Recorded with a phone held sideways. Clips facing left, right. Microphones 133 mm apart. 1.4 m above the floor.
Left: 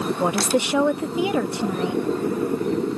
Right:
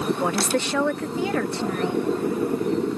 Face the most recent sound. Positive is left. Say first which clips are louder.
# left 2 dB
turn(degrees=15)  # may be behind; listen again after turning